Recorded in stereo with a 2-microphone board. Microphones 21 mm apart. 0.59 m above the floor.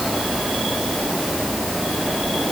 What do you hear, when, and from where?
Only background noise.